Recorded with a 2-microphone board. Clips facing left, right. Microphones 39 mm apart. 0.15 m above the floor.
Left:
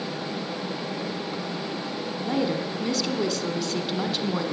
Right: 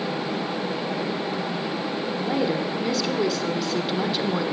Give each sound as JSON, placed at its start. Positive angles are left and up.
{"t": 2.2, "sound": "a woman speaking", "side_deg": -10, "distance_m": 1.4}